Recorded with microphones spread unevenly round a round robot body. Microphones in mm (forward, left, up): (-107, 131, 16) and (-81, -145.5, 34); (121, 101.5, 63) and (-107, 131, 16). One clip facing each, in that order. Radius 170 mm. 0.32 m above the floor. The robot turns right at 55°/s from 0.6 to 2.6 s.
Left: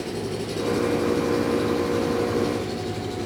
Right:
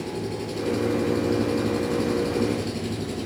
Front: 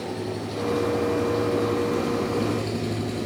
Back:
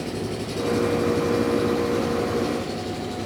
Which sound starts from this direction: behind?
An engine running, at 0.0 s.